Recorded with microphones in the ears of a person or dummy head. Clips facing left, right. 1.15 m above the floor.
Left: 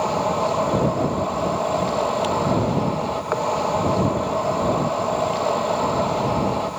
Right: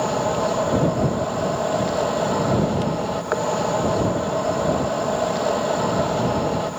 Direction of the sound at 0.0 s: 10° right (ahead or behind).